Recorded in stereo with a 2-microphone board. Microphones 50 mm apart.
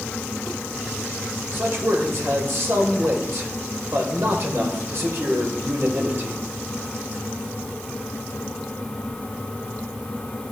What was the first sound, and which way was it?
A man speaking, 55° right (ahead or behind).